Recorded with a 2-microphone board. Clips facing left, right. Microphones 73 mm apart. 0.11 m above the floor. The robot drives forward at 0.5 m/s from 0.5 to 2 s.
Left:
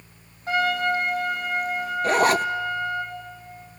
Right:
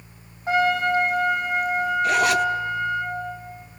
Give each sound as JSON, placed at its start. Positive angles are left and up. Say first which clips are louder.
{"t": 0.5, "sound": "a trumpet", "louder": "right 2 dB", "side_deg": -15, "distance_m": 5.5}
{"t": 2.0, "sound": "a zipper", "louder": "left 2 dB", "side_deg": 40, "distance_m": 0.6}